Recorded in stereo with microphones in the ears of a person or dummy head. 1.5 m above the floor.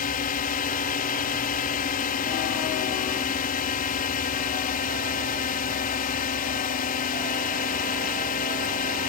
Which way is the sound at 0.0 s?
45° left (ahead or behind).